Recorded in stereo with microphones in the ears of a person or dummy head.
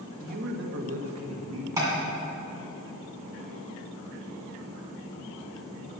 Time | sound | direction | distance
0.2 | a man speaking | 45° right (ahead or behind) | 1.4 m
1.8 | tapping | 20° right (ahead or behind) | 2.5 m